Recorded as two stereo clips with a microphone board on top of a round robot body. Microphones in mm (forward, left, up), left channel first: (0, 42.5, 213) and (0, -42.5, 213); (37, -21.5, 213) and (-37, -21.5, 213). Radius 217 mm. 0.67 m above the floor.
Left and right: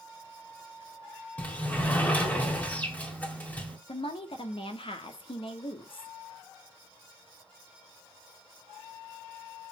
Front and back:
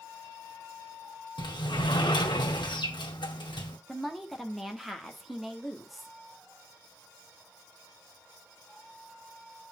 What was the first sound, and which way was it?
A sliding door, 15° left.